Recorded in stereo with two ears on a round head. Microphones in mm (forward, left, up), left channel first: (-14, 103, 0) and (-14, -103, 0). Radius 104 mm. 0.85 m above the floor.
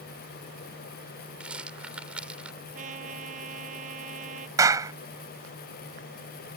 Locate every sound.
1.4 s a rattle: 5° right (ahead or behind)
2.8 s a trumpet: 30° right (ahead or behind)
4.6 s a clap: 15° right (ahead or behind)